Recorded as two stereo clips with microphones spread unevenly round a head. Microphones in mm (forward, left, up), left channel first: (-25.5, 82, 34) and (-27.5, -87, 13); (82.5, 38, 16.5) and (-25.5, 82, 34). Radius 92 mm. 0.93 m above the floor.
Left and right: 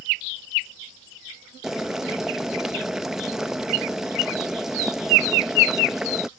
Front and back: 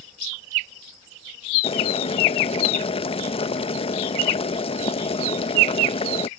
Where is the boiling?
5° right.